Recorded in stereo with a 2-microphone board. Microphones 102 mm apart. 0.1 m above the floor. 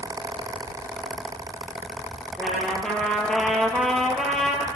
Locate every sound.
2.4 s a trumpet: 5° left (ahead or behind), 1.8 m